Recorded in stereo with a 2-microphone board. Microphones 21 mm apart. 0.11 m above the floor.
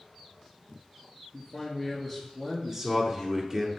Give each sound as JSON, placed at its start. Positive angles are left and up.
{"t": 1.3, "sound": "a man speaking", "side_deg": -5, "distance_m": 2.0}
{"t": 2.7, "sound": "a man speaking", "side_deg": -30, "distance_m": 1.5}